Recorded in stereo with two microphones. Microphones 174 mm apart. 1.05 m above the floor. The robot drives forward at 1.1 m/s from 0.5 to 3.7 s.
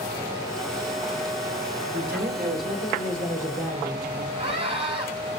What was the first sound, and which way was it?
A man speaking, 75° right (ahead or behind).